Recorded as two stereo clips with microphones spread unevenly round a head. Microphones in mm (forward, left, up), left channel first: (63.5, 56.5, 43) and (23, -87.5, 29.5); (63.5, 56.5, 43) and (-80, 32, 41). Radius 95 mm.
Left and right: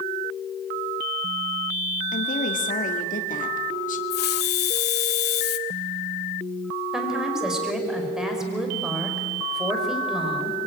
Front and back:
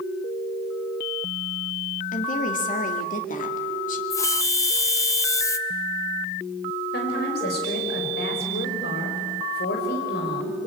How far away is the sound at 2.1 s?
About 2.5 m.